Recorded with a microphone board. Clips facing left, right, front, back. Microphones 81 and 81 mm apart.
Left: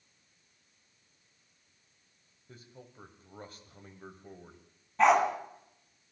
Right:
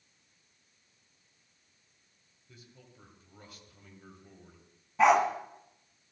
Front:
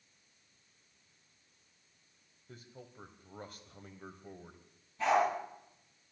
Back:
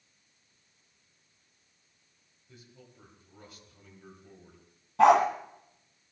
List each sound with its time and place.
2.5 s a man speaking: 40° left, 2.5 m
5.0 s a dog barking: 175° right, 2 m